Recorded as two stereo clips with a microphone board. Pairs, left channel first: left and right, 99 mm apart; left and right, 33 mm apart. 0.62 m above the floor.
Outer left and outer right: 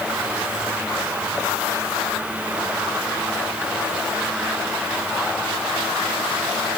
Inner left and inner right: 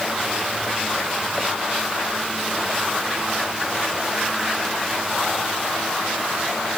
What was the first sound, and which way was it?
Only background noise.